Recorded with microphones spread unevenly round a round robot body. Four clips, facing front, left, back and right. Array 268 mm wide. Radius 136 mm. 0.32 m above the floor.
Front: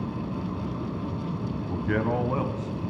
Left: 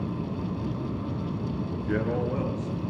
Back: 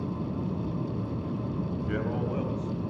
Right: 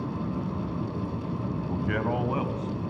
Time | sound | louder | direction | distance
1.7 | a man speaking | even, front 8 dB | 45° right | 1.9 m